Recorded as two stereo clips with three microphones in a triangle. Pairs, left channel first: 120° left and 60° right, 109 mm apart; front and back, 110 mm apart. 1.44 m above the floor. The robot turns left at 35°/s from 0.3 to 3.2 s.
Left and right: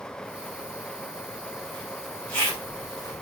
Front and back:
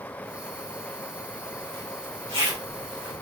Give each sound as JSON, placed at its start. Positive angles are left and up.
{"t": 1.6, "sound": "a zipper", "azimuth_deg": -145, "distance_m": 1.6}